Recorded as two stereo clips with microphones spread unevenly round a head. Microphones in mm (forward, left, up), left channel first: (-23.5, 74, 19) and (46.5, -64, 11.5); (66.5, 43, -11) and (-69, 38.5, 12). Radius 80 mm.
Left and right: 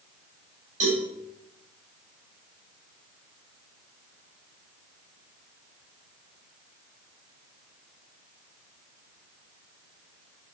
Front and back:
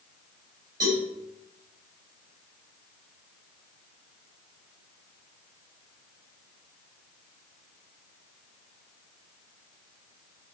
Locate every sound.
0.8 s a cowbell: 110° right, 6 m